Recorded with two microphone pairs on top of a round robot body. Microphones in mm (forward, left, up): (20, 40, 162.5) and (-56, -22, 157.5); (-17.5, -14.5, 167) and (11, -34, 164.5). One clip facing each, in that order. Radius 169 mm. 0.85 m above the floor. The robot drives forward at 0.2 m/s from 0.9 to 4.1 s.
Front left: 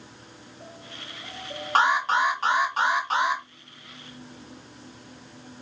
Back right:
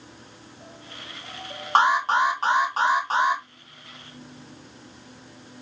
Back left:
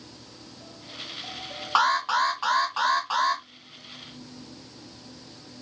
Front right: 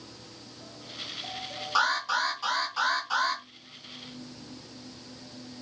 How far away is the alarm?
About 1.7 m.